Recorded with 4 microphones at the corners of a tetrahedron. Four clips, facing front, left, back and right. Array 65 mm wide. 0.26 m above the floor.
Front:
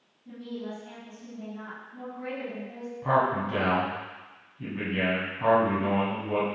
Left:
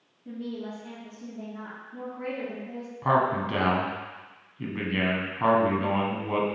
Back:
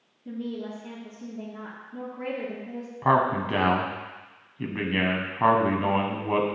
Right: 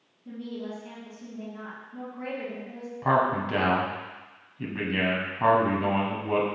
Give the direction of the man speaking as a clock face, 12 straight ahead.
6 o'clock.